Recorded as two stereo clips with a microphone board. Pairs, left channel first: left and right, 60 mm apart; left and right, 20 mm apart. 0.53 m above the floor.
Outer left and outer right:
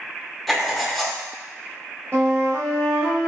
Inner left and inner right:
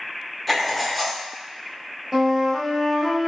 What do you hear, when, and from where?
0.5 s writing: centre (ahead or behind), 0.6 m
2.1 s a flute: 35° right (ahead or behind), 1.3 m